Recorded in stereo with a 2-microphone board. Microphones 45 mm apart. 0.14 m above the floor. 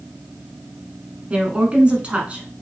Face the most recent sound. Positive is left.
turn(degrees=-25)  # may be behind; listen again after turning